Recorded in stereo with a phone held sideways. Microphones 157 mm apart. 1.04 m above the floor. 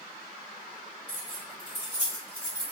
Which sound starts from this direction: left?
Keys jangling, at 1.1 s.